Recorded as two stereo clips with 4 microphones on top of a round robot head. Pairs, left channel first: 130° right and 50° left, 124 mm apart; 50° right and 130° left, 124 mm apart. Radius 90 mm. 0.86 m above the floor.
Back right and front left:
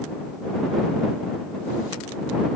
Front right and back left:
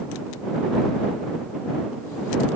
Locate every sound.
Only background noise.